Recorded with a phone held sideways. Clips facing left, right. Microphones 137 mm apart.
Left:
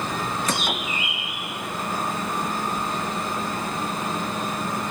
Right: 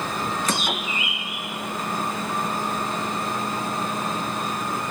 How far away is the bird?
About 0.7 m.